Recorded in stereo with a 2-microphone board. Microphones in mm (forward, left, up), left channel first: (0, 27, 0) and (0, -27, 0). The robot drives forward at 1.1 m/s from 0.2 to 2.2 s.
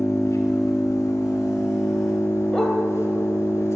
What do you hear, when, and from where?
0.0 s an engine running: 60° left (ahead or behind), 2.5 m; by 3.8 s 55° left (ahead or behind), 2.5 m
2.5 s a dog barking: 5° left (ahead or behind), 2 m